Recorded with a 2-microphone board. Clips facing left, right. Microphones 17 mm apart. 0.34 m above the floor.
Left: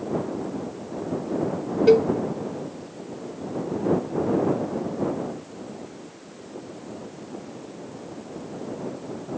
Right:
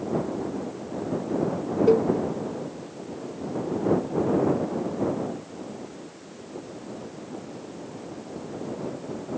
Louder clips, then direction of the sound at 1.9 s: Left 4 dB; 65° left (ahead or behind).